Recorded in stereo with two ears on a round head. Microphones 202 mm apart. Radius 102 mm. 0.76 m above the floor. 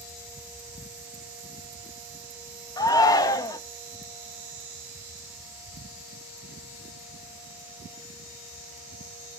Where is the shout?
15° left (ahead or behind), 0.8 m.